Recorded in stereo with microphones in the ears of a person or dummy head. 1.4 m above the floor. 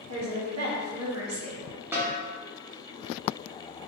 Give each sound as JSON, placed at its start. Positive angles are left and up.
{"t": 0.1, "sound": "a woman speaking", "side_deg": -80, "distance_m": 0.8}
{"t": 1.9, "sound": "a snare drum", "side_deg": -20, "distance_m": 0.6}